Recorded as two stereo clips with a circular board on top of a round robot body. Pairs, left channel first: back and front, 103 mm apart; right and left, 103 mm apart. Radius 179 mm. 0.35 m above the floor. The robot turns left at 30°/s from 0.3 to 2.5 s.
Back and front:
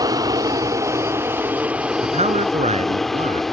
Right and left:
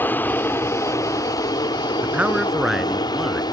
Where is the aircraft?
30° right; by 3.5 s 95° right.